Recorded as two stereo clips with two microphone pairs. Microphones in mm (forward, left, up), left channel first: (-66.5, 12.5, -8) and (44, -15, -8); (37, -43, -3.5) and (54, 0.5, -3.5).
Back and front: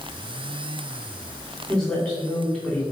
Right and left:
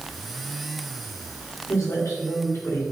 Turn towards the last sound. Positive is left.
turn(degrees=-110)